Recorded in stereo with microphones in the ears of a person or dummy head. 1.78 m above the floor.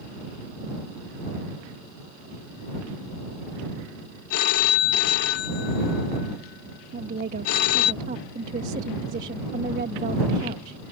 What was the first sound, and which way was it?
A phone ringing, 50° left (ahead or behind).